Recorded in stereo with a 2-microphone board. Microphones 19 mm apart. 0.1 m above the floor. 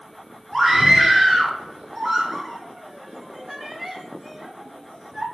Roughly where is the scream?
Right.